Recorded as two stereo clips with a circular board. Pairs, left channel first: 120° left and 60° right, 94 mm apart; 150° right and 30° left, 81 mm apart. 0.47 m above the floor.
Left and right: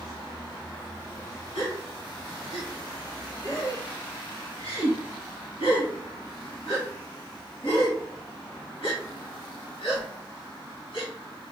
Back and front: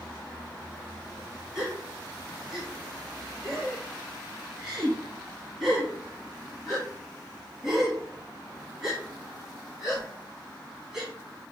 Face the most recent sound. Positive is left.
turn(degrees=115)